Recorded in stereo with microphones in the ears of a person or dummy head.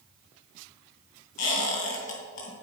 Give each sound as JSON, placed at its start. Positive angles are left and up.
{"t": 1.4, "sound": "a squeak", "side_deg": 45, "distance_m": 3.0}